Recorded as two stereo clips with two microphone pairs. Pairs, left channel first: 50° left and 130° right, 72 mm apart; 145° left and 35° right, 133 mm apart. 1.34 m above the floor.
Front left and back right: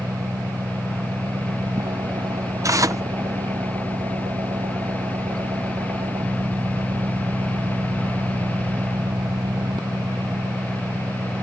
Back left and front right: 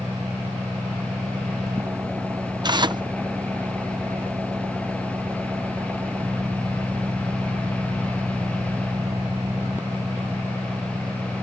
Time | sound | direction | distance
0.0 | an engine running | 110° right | ?
2.6 | tearing paper | 90° right | ?